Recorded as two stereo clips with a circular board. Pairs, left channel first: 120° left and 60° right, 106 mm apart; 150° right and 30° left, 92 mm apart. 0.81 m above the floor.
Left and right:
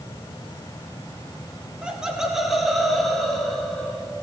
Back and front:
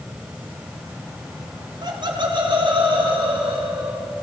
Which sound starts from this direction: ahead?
Laughter, at 1.8 s.